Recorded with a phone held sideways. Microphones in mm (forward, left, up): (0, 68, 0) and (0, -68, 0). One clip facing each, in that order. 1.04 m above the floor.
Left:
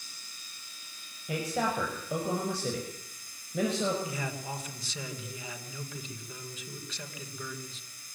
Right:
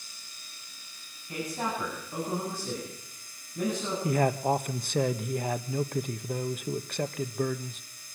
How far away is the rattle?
I don't hear a rattle.